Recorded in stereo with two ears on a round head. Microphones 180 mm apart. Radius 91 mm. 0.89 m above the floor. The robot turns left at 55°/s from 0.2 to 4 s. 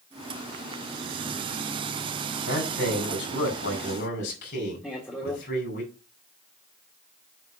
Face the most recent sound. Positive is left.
turn(degrees=10)  # may be behind; listen again after turning